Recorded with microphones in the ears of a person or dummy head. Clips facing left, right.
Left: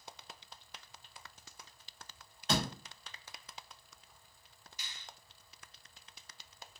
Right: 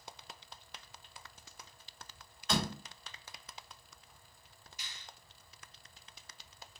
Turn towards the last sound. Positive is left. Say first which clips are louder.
# even
turn(degrees=75)  # may be behind; listen again after turning